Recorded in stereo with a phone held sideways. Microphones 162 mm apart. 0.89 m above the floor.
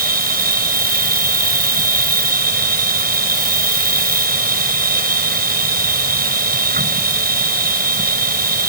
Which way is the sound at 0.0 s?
70° right (ahead or behind).